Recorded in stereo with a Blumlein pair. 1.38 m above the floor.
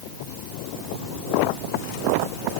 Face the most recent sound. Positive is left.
No sound to turn to.